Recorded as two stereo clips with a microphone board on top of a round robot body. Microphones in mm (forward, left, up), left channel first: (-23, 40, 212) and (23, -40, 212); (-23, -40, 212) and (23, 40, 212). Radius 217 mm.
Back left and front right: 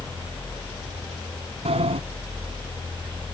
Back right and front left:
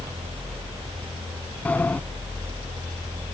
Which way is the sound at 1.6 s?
45° right.